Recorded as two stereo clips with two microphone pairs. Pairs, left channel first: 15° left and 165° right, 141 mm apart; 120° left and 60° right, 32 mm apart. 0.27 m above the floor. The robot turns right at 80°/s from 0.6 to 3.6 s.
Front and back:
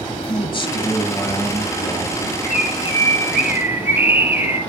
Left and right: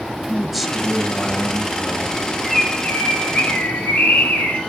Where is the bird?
30° left, 3 m; by 4.6 s 120° left, 3 m.